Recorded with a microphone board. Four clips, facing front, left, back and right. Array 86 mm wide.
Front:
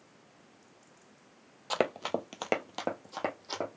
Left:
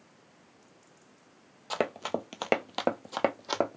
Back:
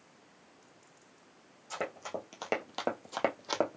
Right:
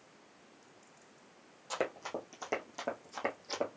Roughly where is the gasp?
I don't hear a gasp.